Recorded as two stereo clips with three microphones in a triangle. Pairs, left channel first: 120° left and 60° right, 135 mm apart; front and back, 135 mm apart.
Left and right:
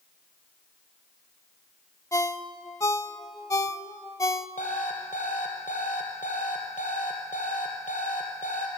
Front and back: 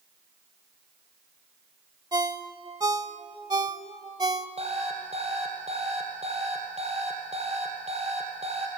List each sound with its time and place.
2.1 s a ringtone: 160° left, 0.7 m
4.6 s an alarm clock: 140° left, 3 m